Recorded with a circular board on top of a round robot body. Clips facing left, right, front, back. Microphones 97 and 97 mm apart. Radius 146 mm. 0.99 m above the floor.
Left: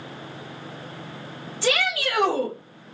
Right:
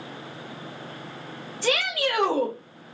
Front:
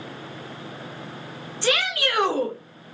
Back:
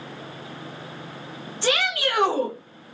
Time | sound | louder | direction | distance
1.6 | a shout | left 1 dB, even | 110° left | 3 m